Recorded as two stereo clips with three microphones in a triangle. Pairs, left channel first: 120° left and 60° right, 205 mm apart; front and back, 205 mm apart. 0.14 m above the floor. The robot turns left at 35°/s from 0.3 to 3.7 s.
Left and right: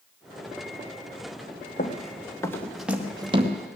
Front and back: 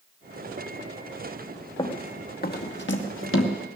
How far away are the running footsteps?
About 1.7 m.